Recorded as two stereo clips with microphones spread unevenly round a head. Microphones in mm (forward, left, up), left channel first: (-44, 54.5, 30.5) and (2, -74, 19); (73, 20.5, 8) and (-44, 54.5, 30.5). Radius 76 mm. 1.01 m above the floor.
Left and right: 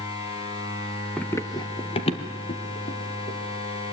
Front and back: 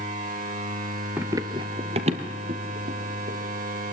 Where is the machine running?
155° left, 4 m.